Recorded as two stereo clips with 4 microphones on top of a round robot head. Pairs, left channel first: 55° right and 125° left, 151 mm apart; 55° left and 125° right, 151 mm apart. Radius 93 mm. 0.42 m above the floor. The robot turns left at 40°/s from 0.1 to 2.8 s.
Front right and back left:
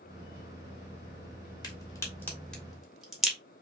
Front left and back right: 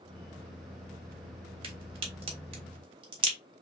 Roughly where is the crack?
Right.